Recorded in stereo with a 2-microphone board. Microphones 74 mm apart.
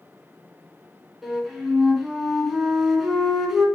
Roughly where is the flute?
Centre.